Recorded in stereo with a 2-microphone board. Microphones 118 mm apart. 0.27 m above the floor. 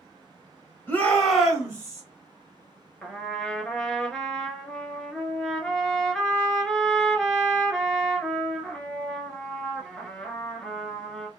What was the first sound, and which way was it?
A shout, 20° left (ahead or behind).